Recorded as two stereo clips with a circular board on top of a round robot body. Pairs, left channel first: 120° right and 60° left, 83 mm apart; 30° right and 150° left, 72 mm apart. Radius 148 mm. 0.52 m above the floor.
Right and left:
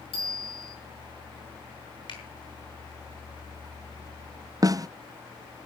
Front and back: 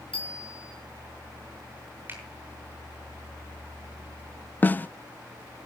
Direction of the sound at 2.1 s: 145° right.